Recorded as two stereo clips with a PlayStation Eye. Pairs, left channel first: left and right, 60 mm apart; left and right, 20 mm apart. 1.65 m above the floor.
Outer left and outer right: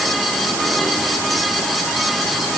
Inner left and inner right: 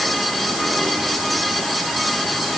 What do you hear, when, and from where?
Only background noise.